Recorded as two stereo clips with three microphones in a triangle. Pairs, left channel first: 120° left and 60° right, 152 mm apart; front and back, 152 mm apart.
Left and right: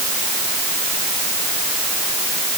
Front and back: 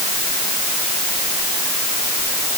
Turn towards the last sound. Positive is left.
No sound to turn to.